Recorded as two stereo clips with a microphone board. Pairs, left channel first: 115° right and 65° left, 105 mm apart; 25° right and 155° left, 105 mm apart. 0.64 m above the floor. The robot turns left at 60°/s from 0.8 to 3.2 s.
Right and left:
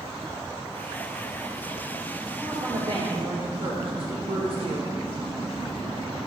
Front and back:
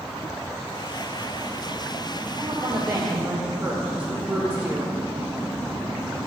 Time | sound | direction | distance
2.4 | a woman speaking | 120° left | 1.8 m